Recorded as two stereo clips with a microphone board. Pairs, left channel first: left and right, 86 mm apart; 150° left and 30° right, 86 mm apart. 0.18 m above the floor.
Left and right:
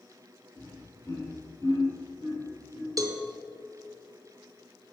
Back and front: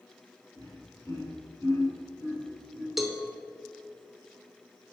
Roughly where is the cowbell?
Behind right.